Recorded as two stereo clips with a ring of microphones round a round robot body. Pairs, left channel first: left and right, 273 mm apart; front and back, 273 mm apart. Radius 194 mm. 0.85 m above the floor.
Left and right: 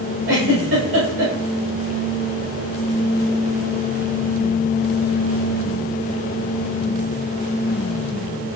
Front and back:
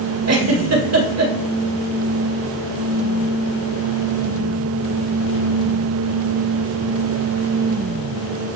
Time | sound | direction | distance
0.3 | a giggle | 150° right | 2 m